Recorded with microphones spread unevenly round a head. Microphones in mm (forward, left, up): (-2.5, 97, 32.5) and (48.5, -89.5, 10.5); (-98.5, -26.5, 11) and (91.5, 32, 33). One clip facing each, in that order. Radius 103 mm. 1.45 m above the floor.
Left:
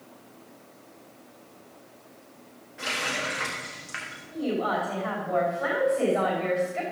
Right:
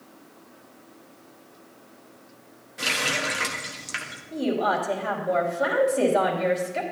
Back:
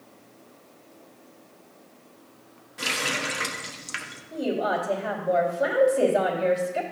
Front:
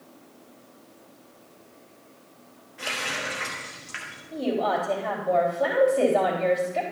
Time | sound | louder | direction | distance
2.8 | a running tap | right 3 dB, back 3 dB | 125° right | 1.2 m
4.3 | a woman speaking | right 3 dB, front 1 dB | 85° right | 3 m